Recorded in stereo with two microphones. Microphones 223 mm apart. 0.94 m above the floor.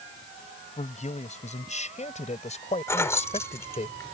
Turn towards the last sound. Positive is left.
turn(degrees=10)  # may be behind; listen again after turning